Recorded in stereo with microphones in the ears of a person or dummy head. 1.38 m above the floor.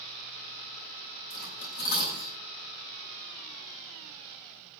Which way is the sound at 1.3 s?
60° left (ahead or behind).